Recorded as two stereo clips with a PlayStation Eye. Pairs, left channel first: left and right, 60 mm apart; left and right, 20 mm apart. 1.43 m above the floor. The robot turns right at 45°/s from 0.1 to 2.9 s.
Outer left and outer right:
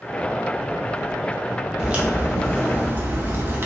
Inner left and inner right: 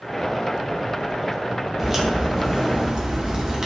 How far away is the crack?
About 0.6 m.